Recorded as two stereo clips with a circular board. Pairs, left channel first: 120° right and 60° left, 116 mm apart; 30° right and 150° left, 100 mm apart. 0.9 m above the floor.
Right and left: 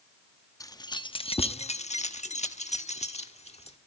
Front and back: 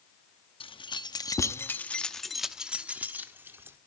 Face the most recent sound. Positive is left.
turn(degrees=-145)